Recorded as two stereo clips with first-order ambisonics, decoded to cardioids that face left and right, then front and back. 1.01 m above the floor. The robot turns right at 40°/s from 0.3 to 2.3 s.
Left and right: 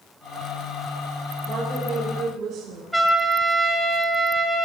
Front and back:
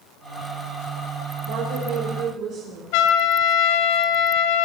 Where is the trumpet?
5° left, 1.4 m.